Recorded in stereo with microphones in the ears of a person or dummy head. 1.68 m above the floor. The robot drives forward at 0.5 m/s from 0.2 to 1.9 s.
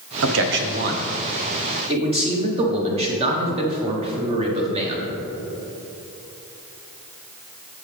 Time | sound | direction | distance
0.2 | a man speaking | 75° right (ahead or behind) | 0.7 m